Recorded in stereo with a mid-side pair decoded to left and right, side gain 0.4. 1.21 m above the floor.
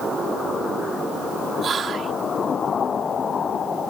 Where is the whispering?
50° right.